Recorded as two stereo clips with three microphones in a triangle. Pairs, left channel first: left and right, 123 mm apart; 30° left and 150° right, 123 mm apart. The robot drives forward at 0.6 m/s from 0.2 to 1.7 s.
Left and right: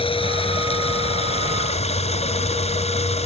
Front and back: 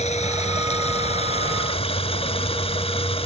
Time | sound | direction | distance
0.0 | running water | 50° left | ?